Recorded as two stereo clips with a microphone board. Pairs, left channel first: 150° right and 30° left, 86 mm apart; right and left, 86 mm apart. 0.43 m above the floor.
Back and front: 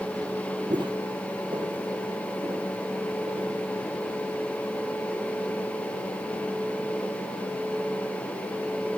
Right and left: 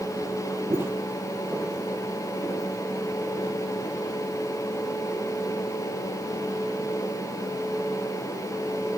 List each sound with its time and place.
0.7 s footsteps: 35° left, 0.8 m; by 3.6 s straight ahead, 3 m